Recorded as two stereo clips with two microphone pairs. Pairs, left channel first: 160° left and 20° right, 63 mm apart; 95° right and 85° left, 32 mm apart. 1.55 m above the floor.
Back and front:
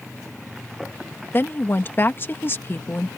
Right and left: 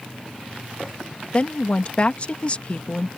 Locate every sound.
1.3 s a woman speaking: 145° right